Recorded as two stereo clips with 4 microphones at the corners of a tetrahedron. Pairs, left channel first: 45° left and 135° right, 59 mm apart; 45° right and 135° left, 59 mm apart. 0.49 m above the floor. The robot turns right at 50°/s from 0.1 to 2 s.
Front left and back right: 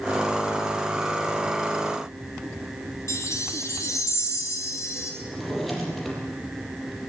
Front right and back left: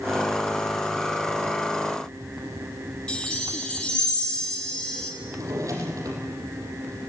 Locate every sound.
3.1 s a chime: 25° left, 3.5 m
5.2 s a drawer: 135° left, 5.5 m